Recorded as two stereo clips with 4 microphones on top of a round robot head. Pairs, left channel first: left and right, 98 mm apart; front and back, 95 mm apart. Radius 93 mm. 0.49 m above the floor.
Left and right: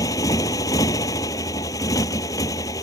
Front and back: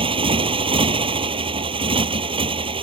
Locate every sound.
0.0 s a motorcycle: 155° left